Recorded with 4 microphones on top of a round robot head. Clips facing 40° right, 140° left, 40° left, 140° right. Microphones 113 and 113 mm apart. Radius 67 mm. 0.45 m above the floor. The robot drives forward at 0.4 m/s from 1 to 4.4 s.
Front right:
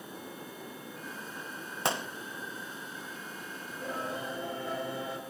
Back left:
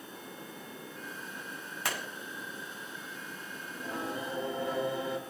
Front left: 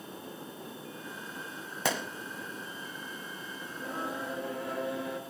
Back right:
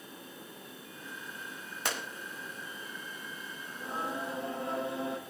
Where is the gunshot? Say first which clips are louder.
Front right 5 dB, front left 5 dB; 30° left, 0.7 m; by 2.1 s 35° left, 0.7 m.